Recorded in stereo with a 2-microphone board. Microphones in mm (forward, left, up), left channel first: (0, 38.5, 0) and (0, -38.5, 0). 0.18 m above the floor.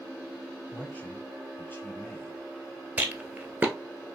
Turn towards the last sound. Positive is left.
turn(degrees=-25)  # may be behind; listen again after turning